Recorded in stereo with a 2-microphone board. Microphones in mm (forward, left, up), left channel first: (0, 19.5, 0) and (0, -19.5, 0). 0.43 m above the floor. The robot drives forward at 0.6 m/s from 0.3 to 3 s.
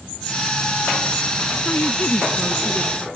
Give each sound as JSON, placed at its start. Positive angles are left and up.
{"t": 1.6, "sound": "a woman speaking", "side_deg": 45}